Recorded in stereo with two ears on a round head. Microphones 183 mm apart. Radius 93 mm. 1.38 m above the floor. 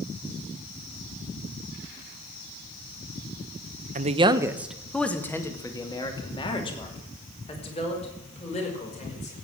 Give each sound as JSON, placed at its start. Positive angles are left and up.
{"t": 4.0, "sound": "a man speaking", "side_deg": -40, "distance_m": 1.0}